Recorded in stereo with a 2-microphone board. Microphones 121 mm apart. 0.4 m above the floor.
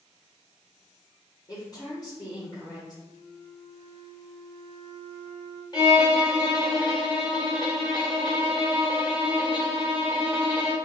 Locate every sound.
1.5 s a woman speaking: 35° left (ahead or behind), 1.4 m
3.0 s a flute: 60° right (ahead or behind), 0.7 m
5.7 s a violin: 35° left (ahead or behind), 0.9 m